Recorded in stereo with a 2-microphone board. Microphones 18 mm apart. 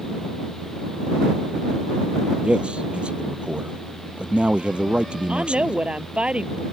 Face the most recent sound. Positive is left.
turn(degrees=-85)